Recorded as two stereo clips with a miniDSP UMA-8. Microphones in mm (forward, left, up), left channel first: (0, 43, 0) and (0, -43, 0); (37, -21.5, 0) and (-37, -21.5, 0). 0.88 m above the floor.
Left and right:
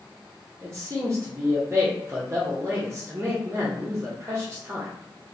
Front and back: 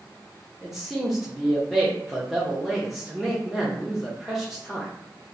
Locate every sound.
0.6 s a man speaking: 95° right, 0.6 m